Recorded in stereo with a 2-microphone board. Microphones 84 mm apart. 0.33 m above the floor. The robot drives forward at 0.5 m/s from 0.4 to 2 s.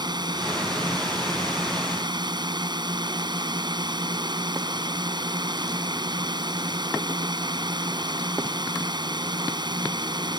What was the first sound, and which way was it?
A drone, 60° right (ahead or behind).